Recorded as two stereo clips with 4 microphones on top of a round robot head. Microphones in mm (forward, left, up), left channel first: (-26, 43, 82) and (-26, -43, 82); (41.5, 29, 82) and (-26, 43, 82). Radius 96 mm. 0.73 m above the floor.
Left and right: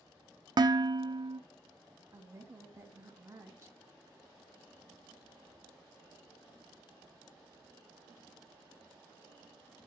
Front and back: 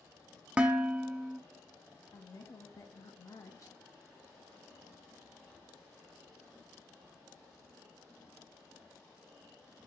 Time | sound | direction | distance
0.6 | dishes clattering | 120° right | 0.5 m
2.1 | a woman speaking | 35° right | 1.1 m